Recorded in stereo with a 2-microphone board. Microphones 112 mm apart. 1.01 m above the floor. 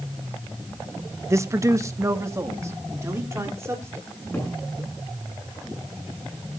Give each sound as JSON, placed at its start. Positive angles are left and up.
{"t": 1.3, "sound": "a man speaking", "side_deg": -25, "distance_m": 0.7}
{"t": 4.1, "sound": "a cupboard door", "side_deg": 15, "distance_m": 8.5}